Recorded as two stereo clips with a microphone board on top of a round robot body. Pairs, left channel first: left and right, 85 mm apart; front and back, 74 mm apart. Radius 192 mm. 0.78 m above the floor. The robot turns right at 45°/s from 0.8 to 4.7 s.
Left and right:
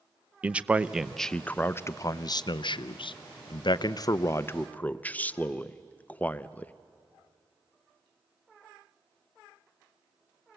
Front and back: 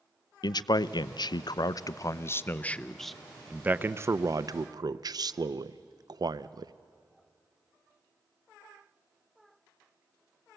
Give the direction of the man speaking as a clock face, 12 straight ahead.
12 o'clock.